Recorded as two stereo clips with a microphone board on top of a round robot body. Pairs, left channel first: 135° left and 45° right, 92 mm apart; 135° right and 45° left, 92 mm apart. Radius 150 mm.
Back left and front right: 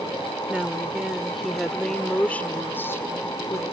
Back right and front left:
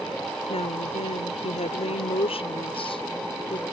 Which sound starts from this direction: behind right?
A woman speaking, at 0.5 s.